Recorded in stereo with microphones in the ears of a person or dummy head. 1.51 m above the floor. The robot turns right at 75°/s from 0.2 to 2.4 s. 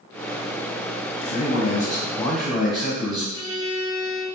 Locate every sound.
1.2 s a man speaking: 90° left, 1.4 m; by 3.2 s straight behind, 1.4 m
3.3 s a violin: 75° left (ahead or behind), 1.0 m